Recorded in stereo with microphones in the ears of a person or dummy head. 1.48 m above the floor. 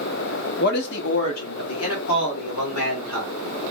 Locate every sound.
0.6 s a man speaking: 50° left (ahead or behind), 0.6 m; by 3.3 s 75° left (ahead or behind), 2.0 m